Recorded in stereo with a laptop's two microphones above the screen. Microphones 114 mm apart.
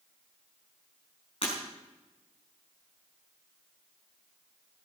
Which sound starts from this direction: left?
Breaking glass, at 1.4 s.